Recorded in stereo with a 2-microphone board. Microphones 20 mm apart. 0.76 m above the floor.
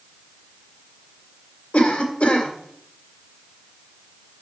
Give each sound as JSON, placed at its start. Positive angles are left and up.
{"t": 1.7, "sound": "a cough", "side_deg": 70, "distance_m": 2.5}